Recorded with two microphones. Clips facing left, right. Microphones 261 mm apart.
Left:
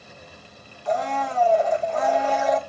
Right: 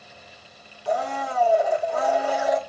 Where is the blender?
10° right (ahead or behind), 0.9 m.